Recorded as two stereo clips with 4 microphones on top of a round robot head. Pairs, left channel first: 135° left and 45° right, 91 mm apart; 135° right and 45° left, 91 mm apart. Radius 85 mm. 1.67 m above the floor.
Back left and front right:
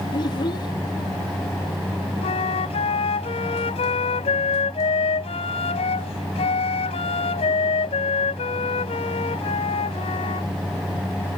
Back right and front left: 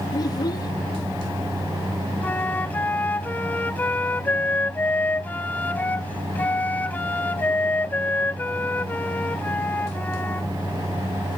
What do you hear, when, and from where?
0.1 s a child speaking: straight behind
2.2 s a flute: 155° left